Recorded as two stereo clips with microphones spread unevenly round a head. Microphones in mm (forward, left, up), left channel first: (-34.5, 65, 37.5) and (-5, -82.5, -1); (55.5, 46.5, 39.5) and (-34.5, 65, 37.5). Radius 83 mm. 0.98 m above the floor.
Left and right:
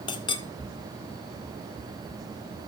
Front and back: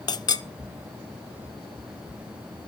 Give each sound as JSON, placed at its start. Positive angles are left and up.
{"t": 0.1, "sound": "a clink", "azimuth_deg": 35, "distance_m": 0.8}